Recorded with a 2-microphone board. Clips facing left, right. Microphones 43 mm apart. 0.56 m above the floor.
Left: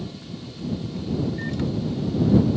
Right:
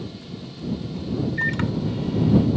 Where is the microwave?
60° right (ahead or behind).